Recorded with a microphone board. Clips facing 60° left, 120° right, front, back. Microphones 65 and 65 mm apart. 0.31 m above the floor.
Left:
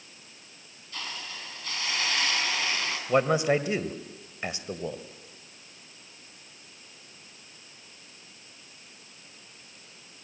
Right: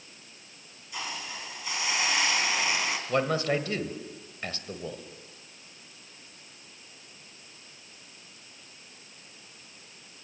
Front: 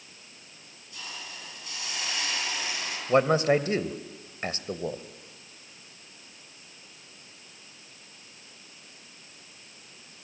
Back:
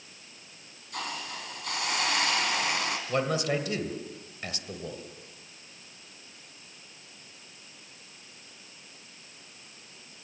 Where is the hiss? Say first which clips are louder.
Right 2 dB, back 6 dB; 165° left, 3 m.